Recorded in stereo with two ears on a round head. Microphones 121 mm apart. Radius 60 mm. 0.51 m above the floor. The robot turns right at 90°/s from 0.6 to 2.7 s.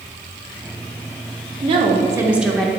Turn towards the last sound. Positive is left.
turn(degrees=15)